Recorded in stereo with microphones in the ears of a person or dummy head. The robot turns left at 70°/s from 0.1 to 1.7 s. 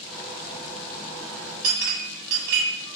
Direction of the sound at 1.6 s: 50° right (ahead or behind).